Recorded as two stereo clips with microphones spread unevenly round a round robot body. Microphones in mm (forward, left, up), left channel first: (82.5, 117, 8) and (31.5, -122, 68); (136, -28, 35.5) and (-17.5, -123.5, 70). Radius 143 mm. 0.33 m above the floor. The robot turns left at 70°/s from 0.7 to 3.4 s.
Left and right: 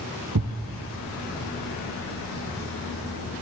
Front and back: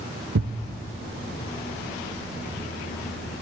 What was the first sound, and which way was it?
A thud, 135° right.